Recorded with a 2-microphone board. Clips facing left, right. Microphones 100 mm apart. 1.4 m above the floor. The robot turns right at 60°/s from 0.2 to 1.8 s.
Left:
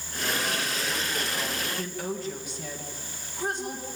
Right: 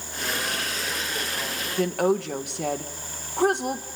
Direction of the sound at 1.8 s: 70° right (ahead or behind).